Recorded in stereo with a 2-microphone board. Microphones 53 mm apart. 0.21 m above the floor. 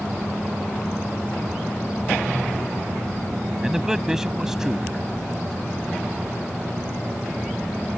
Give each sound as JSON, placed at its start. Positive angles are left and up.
{"t": 3.6, "sound": "a man speaking", "side_deg": -10}